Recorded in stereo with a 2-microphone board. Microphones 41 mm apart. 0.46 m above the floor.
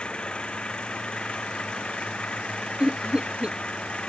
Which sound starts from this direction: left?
An engine running, at 0.0 s.